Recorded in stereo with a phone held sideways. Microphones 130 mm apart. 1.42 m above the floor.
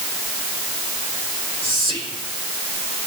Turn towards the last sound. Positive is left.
turn(degrees=45)  # may be behind; listen again after turning